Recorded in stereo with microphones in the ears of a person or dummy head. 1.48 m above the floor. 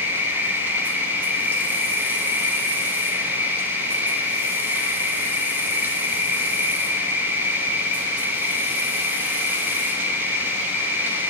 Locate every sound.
0.0 s an insect: 15° right (ahead or behind), 1.4 m